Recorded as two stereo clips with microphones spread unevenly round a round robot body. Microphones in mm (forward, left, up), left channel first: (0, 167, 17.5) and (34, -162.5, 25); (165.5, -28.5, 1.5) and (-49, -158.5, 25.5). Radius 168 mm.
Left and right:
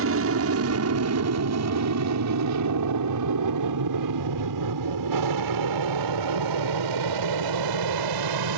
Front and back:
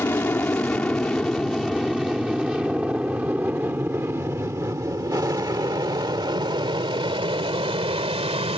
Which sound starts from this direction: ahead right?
An aircraft, at 0.0 s.